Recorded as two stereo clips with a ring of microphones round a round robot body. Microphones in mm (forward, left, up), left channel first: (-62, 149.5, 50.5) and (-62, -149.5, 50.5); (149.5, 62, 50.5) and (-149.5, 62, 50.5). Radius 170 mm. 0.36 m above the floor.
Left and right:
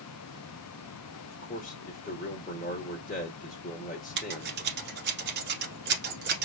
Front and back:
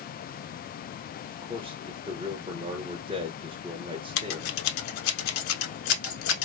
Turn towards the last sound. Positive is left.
turn(degrees=-30)